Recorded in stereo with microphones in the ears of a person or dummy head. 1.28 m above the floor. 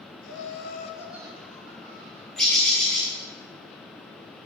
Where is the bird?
Centre (ahead or behind), 1.0 m.